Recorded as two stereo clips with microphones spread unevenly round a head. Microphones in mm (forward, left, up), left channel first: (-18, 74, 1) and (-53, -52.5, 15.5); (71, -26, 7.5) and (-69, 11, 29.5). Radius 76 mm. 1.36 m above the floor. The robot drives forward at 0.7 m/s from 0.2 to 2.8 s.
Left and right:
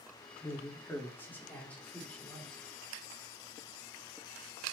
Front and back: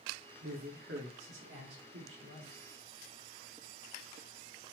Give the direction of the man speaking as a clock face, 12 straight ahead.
7 o'clock.